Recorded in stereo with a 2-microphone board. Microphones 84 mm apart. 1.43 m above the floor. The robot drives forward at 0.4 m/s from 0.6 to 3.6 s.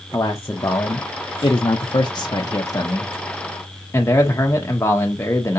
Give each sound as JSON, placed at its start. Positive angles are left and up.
{"t": 0.1, "sound": "a man speaking", "side_deg": 35, "distance_m": 0.7}